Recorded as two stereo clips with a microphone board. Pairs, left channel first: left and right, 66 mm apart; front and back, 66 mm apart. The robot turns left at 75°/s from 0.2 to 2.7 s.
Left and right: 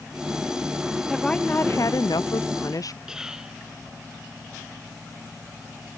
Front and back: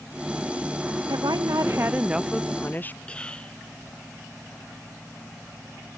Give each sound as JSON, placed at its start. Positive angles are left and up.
{"t": 1.1, "sound": "a woman speaking", "azimuth_deg": 180}
{"t": 3.1, "sound": "whispering", "azimuth_deg": -30}